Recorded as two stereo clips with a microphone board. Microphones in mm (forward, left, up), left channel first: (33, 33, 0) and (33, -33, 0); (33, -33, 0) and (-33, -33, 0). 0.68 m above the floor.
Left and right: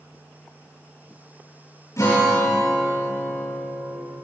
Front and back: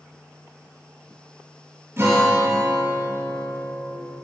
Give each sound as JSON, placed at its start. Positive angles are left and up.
{"t": 2.0, "sound": "a guitar", "azimuth_deg": 125, "distance_m": 4.0}